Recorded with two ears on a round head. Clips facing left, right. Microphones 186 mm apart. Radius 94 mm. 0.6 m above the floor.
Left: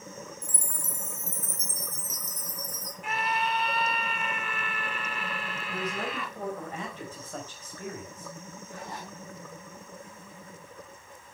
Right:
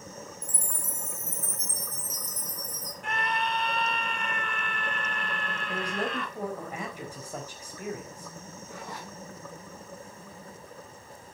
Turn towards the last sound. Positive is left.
turn(degrees=-60)  # may be behind; listen again after turning